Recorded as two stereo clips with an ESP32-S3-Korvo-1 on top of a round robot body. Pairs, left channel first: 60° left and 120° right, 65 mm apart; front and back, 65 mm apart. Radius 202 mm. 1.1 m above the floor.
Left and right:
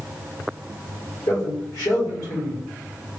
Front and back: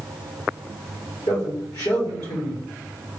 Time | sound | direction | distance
1.3 | a man speaking | 30° left | 2 m